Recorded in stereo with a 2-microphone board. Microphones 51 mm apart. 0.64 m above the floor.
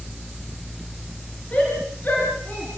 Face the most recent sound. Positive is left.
turn(degrees=40)  # may be behind; listen again after turning